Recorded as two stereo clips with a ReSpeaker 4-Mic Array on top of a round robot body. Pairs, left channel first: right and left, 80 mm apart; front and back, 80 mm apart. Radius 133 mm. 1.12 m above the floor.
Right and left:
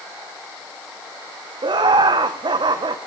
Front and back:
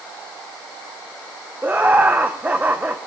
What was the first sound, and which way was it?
Laughter, 110° left.